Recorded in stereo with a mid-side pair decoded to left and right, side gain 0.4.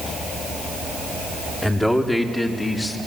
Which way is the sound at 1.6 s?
15° left.